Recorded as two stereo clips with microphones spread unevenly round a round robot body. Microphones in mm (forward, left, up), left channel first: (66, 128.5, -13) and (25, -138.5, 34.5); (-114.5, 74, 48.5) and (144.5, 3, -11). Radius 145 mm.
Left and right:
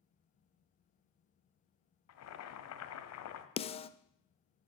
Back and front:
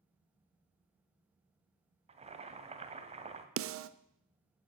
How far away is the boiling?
About 1.2 m.